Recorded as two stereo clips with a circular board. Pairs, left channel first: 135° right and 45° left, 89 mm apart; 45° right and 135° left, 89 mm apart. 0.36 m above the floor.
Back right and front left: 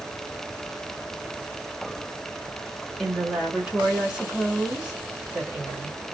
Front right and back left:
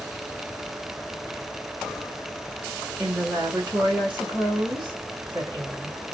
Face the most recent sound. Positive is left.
turn(degrees=125)